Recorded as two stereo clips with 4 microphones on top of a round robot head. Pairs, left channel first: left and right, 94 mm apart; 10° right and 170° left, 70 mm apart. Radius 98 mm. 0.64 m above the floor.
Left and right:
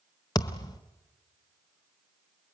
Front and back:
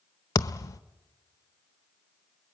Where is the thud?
35° left, 0.6 m.